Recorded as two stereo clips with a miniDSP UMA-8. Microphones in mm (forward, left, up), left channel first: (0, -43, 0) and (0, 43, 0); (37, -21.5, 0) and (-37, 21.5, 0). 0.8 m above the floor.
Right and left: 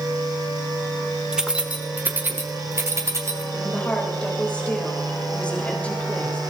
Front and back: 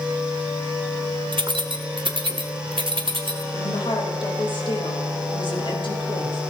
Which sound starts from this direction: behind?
Keys jangling, at 1.3 s.